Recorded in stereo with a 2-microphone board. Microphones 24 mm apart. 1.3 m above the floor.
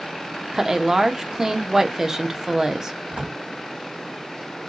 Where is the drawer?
55° right (ahead or behind), 2.0 m.